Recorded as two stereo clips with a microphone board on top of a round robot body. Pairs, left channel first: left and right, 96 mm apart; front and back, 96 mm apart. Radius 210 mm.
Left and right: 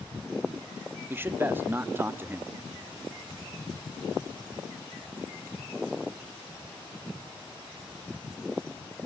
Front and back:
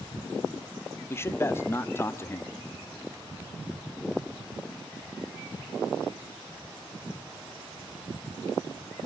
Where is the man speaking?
40° right, 1.0 m.